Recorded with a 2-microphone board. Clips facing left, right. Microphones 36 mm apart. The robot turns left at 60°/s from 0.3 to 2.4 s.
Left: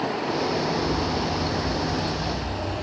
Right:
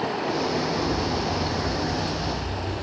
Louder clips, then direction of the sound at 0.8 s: Even; 130° right.